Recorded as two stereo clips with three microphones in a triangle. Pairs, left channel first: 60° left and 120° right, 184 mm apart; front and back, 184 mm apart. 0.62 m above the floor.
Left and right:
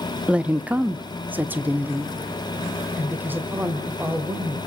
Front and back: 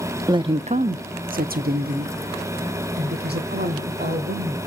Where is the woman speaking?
165° left, 0.5 m; by 4.6 s 160° left, 2.5 m.